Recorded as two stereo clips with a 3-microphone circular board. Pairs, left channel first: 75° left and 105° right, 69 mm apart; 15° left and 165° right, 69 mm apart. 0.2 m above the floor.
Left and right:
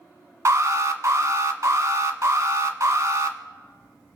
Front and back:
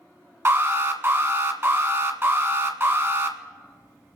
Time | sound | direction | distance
0.5 | an alarm | 125° right | 1.3 m